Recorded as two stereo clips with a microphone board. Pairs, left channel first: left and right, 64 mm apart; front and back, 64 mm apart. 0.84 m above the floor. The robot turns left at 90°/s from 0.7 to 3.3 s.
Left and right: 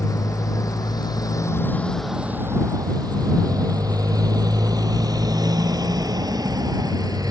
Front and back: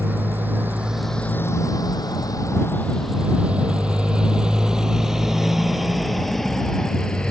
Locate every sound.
0.0 s a motorcycle: 115° left; by 7.3 s 75° right